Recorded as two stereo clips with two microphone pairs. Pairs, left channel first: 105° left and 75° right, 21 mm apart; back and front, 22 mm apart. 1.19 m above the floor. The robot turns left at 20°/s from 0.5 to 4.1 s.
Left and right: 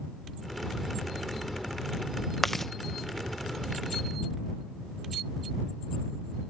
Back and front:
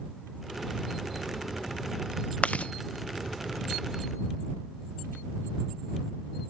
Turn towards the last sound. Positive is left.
turn(degrees=150)